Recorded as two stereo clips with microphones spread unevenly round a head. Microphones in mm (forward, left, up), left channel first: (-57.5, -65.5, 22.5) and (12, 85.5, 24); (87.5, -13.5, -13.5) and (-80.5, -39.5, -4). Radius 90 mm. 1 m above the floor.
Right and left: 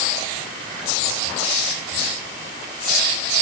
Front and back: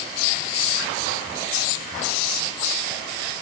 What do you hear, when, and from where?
Only background noise.